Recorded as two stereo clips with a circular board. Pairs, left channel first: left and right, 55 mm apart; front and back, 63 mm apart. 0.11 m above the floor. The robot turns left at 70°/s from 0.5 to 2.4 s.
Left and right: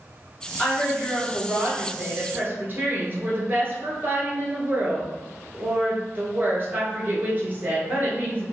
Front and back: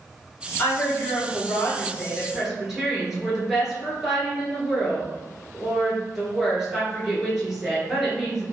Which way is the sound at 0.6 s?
30° left.